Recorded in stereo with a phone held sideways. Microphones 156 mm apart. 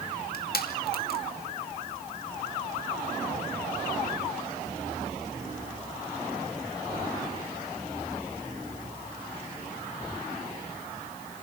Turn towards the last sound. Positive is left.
turn(degrees=75)  # may be behind; listen again after turning